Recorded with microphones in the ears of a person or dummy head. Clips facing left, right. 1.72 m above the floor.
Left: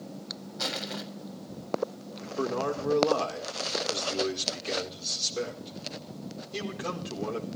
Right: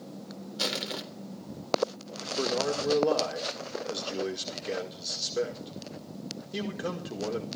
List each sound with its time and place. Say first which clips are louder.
0.6 s crushing: right 1 dB; 50° right (ahead or behind), 3.5 m
2.2 s a man speaking: even; 15° right (ahead or behind), 5 m